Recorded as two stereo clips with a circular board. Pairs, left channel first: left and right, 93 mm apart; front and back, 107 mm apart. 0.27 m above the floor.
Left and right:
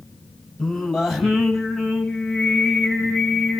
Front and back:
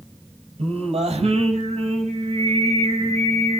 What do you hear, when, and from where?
0.6 s singing: straight behind, 6 m